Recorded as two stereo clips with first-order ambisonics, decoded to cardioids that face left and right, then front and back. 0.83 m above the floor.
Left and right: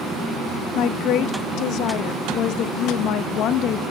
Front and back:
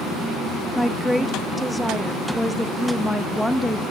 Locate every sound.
0.8 s a woman speaking: 85° left, 0.7 m